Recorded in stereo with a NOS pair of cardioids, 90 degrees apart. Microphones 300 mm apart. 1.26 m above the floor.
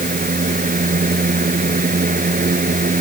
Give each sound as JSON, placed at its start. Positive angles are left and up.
{"t": 0.0, "sound": "a fan", "azimuth_deg": -25}